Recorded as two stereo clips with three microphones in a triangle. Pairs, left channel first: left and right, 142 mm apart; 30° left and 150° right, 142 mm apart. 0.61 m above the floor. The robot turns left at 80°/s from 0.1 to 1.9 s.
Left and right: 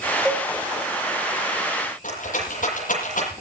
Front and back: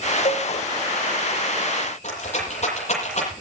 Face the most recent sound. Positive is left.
turn(degrees=65)